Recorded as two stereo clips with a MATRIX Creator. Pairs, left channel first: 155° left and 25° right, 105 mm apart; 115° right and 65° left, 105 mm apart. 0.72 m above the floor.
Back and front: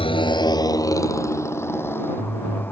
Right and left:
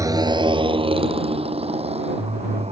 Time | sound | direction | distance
0.0 | a motorcycle | 125° left | ?